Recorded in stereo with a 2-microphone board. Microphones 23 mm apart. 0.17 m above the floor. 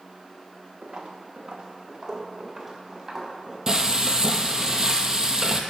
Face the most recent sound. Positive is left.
turn(degrees=-25)  # may be behind; listen again after turning